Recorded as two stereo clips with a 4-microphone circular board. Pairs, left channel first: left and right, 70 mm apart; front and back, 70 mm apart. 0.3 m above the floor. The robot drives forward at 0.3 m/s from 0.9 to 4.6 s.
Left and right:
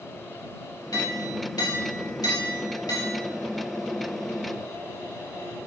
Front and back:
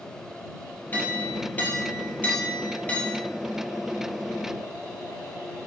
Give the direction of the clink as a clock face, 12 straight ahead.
10 o'clock.